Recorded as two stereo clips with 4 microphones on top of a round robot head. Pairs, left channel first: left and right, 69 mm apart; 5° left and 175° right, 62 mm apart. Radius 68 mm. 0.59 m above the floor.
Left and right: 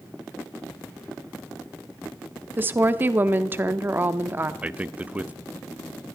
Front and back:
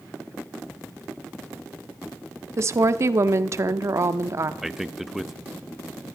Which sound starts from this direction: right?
A man speaking, at 4.6 s.